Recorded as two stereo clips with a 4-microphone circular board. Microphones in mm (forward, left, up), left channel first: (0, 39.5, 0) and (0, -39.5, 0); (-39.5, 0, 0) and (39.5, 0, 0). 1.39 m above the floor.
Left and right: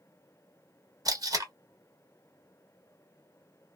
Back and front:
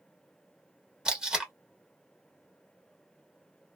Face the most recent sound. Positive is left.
turn(degrees=-80)